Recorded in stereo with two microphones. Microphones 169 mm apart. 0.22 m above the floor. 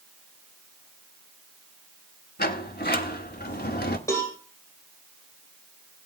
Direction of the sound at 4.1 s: 20° left (ahead or behind).